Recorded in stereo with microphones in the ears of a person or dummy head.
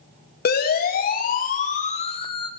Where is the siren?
50° left (ahead or behind), 3 m; by 2.5 s 20° left (ahead or behind), 1.4 m.